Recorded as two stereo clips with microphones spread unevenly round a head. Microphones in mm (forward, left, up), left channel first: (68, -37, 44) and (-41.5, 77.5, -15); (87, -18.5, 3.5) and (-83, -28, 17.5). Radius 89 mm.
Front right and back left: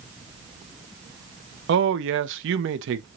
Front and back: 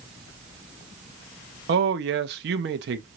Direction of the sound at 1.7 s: 145° left.